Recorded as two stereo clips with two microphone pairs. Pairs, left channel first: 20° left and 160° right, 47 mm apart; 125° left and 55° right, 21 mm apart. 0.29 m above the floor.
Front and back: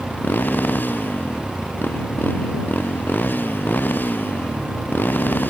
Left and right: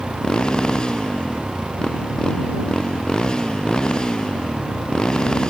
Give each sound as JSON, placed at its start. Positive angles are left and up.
{"t": 0.0, "sound": "a motorcycle", "azimuth_deg": 70}